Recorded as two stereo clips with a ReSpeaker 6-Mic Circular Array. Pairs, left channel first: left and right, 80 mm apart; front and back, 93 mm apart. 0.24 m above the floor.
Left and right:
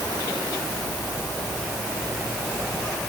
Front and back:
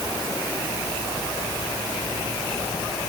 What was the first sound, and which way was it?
Only background noise.